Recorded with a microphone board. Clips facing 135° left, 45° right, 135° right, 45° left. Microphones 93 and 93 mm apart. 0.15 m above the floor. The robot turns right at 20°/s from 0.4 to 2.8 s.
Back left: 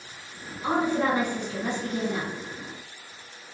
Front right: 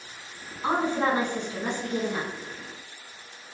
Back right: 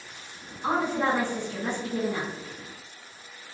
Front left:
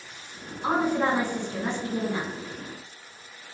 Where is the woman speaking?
20° right, 1.2 m; by 2.3 s 10° left, 1.2 m.